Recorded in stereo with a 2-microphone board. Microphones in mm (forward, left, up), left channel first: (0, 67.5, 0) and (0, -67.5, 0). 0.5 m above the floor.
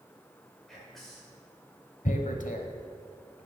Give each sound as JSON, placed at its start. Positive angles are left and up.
{"t": 0.7, "sound": "whispering", "side_deg": 0, "distance_m": 1.7}
{"t": 2.0, "sound": "tearing paper", "side_deg": 75, "distance_m": 0.8}